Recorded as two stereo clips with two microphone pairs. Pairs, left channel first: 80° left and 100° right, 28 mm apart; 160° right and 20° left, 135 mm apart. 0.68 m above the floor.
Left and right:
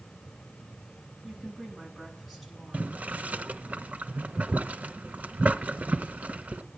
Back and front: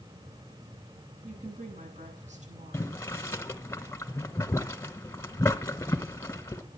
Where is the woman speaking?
10° right, 8 m.